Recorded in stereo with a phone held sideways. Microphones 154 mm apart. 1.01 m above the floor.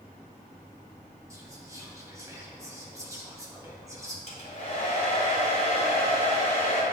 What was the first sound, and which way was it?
Whispering, 20° right (ahead or behind).